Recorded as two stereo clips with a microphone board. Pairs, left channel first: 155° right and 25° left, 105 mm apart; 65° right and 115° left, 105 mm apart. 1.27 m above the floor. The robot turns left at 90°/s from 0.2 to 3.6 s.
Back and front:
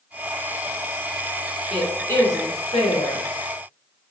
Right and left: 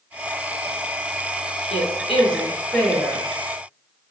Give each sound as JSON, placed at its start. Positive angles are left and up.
{"t": 1.7, "sound": "a woman speaking", "azimuth_deg": -55, "distance_m": 1.5}